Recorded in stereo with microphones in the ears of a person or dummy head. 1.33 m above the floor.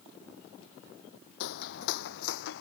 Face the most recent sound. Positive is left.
turn(degrees=65)  # may be behind; listen again after turning